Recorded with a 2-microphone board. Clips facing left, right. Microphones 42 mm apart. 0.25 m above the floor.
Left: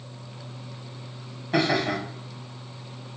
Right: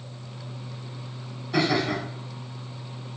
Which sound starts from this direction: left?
Laughter, at 1.5 s.